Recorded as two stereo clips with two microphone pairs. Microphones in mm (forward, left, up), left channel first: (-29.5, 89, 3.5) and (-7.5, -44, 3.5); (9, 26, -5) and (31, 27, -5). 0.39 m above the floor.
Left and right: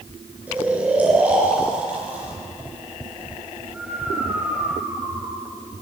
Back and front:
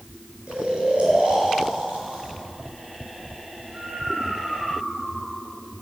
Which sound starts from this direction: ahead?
Snoring, at 0.5 s.